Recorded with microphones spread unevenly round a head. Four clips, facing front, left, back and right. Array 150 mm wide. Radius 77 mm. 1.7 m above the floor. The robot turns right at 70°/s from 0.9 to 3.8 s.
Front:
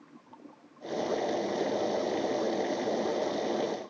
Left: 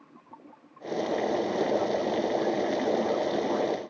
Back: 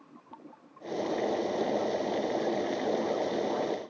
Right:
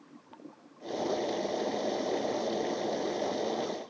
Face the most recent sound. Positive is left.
No sound to turn to.